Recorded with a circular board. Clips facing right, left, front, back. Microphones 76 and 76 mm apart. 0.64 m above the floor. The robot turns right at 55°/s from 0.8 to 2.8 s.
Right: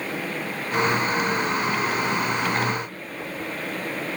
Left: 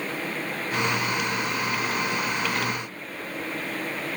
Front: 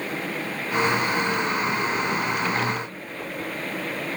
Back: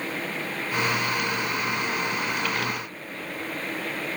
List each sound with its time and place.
Only background noise.